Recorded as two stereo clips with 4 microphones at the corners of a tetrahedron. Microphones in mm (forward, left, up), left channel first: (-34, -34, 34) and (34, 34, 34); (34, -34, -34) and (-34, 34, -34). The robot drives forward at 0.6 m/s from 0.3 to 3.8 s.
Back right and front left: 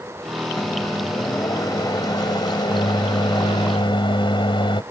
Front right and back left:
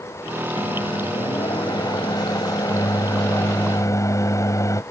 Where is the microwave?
75° right; by 4.8 s 100° right.